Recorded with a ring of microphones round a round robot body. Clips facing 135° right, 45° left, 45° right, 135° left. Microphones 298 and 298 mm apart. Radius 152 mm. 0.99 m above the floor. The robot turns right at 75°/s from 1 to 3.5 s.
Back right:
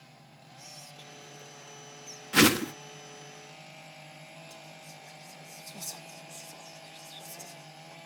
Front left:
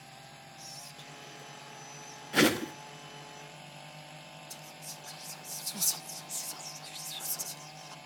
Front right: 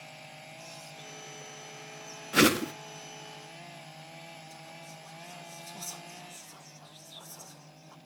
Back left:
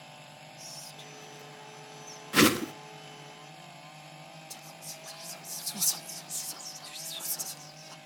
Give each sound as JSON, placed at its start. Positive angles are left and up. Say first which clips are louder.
{"t": 0.6, "sound": "whispering", "louder": "even, front right 1 dB", "azimuth_deg": 120, "distance_m": 0.5}
{"t": 2.3, "sound": "a whoosh", "louder": "back right 3 dB, even", "azimuth_deg": -160, "distance_m": 0.6}
{"t": 4.5, "sound": "whispering", "louder": "even, front right 1 dB", "azimuth_deg": 105, "distance_m": 0.5}